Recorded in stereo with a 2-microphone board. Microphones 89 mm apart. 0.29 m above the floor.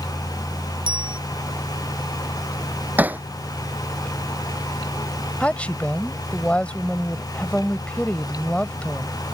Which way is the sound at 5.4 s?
15° left (ahead or behind).